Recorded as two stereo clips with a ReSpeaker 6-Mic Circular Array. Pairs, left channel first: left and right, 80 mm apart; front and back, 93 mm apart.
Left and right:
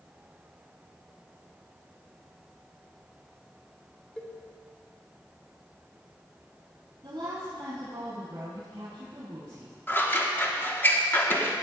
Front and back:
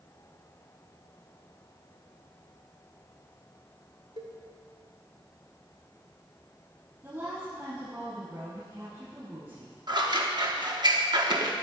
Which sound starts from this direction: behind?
A cowbell, at 4.2 s.